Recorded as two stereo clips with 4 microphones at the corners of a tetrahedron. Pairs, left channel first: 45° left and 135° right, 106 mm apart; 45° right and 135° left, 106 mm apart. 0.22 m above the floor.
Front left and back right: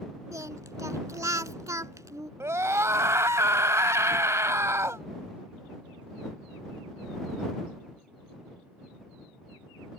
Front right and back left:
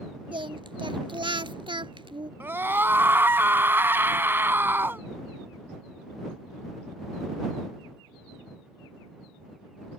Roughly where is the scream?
Behind.